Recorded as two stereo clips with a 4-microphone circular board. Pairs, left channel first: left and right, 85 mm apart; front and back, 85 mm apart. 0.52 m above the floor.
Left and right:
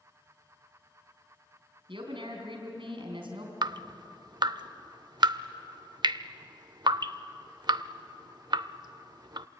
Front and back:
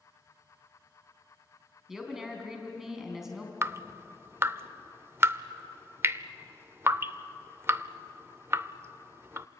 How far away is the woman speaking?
About 4 m.